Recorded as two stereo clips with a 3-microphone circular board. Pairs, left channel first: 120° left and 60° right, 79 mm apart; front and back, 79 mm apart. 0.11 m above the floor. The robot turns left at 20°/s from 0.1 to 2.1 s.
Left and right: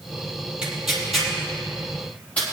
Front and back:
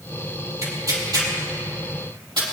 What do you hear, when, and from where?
0.6 s tearing paper: 140° right, 3.5 m; by 2.4 s 170° right, 3.5 m